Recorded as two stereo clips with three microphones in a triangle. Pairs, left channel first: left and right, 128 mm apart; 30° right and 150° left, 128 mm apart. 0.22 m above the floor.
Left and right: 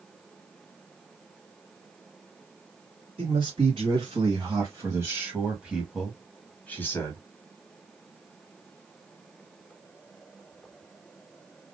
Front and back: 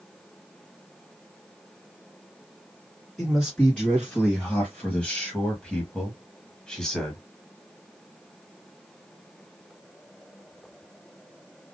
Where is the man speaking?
110° right, 1.9 m; by 7.2 s 50° left, 1.4 m.